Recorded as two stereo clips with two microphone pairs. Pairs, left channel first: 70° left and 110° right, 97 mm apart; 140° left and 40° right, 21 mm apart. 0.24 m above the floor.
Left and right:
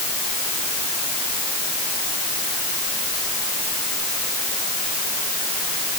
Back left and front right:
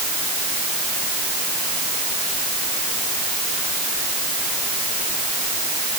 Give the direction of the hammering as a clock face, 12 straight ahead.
I don't hear hammering.